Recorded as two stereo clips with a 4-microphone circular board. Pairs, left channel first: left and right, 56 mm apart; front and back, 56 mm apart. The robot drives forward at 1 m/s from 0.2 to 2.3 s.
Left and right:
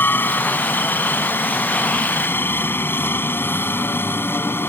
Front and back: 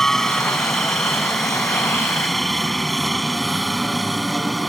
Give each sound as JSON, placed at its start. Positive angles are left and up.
{"t": 0.0, "sound": "a helicopter", "azimuth_deg": 80}